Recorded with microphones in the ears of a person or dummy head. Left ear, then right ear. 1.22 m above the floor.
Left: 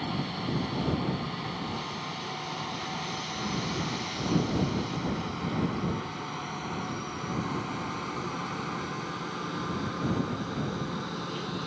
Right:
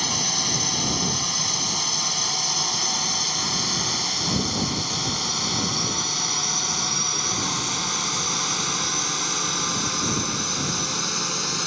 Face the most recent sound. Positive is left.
turn(degrees=-65)  # may be behind; listen again after turning